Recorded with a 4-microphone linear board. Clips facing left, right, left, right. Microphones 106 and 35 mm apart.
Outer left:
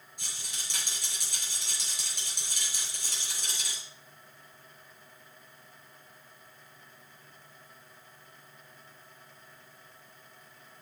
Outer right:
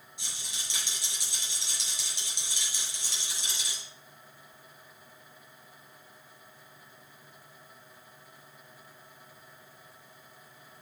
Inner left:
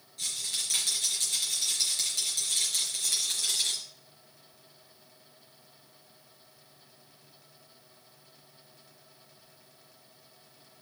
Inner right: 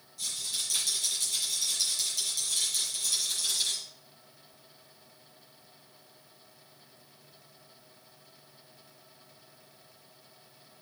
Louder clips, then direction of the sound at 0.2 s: Even, inner left 1 dB; 50° left (ahead or behind).